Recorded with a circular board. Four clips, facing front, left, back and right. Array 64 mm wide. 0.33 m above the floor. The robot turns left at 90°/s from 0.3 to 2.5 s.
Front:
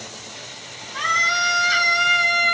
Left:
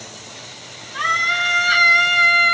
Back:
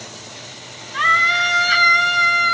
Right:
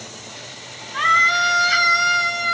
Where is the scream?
145° right, 1.7 m; by 2.5 s 75° left, 1.7 m.